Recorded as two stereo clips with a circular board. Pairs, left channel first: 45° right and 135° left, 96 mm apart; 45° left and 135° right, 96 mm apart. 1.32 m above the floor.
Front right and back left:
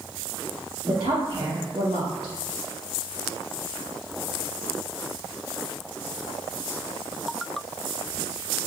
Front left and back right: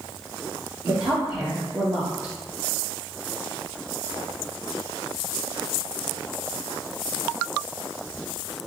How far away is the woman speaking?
About 3 m.